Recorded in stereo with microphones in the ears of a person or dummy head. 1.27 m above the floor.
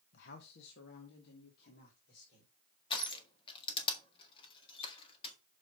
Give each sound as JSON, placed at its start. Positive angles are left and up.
{"t": 0.1, "sound": "a man speaking", "side_deg": 65, "distance_m": 1.0}
{"t": 2.9, "sound": "crushing", "side_deg": 30, "distance_m": 1.6}